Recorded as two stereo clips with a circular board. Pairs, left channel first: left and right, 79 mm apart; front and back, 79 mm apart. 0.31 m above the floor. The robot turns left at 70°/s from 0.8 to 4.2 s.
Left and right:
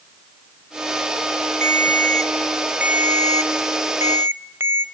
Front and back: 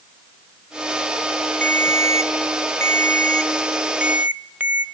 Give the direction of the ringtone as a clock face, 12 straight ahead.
10 o'clock.